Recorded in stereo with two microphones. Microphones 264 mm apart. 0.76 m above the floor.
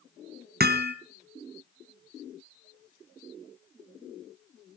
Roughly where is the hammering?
Right.